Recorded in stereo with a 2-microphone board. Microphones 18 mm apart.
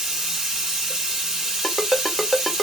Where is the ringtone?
5° left (ahead or behind), 1.0 m.